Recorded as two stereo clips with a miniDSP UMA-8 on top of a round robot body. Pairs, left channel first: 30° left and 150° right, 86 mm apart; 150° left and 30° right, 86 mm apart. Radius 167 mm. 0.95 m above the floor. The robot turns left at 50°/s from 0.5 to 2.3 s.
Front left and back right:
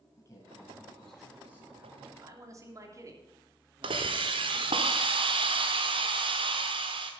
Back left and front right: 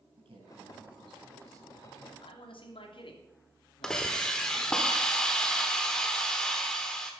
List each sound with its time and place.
0.2 s a man speaking: 25° right, 8.5 m; by 2.1 s 105° right, 8.5 m
2.2 s a man speaking: 160° left, 3 m; by 4.8 s 155° left, 3 m
3.8 s a hiss: 125° right, 1.0 m